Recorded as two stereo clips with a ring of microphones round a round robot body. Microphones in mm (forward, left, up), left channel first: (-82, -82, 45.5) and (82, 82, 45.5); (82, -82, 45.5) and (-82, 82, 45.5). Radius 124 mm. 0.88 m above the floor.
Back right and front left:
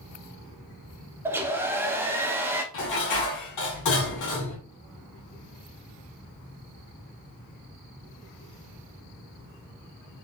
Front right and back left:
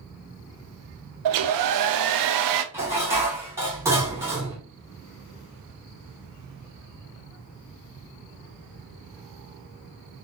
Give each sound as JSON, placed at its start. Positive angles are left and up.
{"t": 1.2, "sound": "a hair dryer", "azimuth_deg": 125, "distance_m": 0.5}
{"t": 2.7, "sound": "dishes clattering", "azimuth_deg": -145, "distance_m": 1.8}